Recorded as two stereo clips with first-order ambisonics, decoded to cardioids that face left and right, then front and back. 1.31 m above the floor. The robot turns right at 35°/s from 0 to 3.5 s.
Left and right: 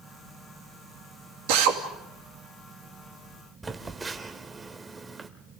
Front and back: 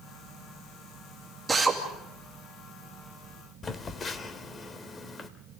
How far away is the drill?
About 2.5 m.